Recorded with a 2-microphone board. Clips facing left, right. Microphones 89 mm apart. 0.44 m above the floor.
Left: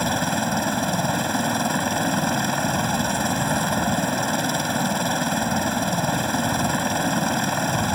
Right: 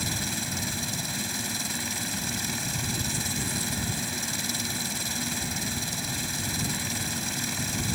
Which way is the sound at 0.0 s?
60° left (ahead or behind).